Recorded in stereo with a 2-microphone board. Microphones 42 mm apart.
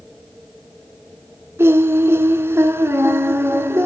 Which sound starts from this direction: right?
Singing, at 1.6 s.